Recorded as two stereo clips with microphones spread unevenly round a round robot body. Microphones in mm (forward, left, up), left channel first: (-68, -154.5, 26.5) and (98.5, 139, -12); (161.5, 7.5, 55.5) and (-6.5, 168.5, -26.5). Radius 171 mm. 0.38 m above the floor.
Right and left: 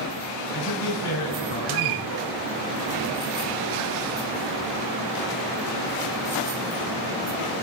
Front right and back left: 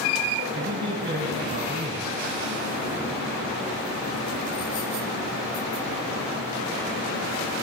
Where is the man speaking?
155° right, 5.5 m.